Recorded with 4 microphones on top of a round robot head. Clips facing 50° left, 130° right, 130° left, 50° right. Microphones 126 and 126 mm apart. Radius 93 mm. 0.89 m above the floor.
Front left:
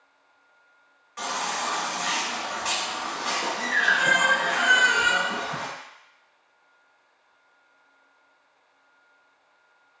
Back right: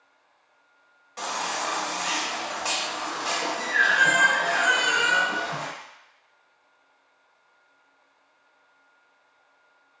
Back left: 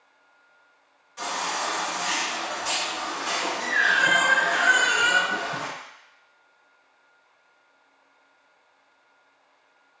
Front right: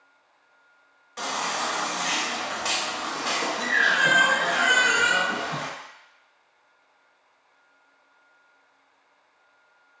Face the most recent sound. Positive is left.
turn(degrees=-70)